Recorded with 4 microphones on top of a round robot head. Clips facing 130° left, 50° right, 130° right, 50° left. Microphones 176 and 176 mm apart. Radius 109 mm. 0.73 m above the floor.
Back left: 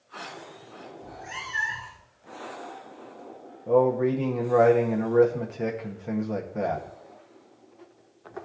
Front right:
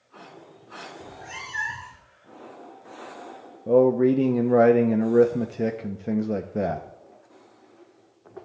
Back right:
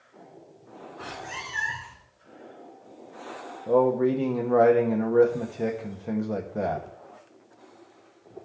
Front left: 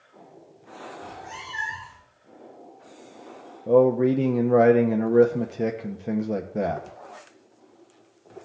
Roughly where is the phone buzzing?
No phone buzzing in this recording.